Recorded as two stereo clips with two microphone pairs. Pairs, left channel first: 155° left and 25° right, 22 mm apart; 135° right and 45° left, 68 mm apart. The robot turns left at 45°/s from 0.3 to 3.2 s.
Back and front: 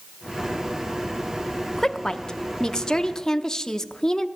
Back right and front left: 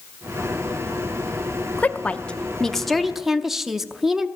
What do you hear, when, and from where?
1.8 s a woman speaking: 170° right, 0.7 m; by 4.3 s 125° left, 0.7 m